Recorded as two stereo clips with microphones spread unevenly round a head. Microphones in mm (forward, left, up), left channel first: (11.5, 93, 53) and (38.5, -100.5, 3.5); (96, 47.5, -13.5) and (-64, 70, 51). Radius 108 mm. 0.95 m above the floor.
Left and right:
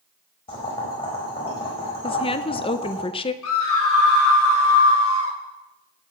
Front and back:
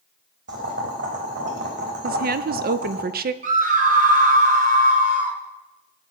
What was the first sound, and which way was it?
Boiling, 165° left.